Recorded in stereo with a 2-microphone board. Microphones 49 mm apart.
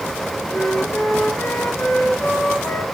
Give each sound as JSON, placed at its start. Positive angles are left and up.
{"t": 0.5, "sound": "a flute", "side_deg": 60, "distance_m": 4.5}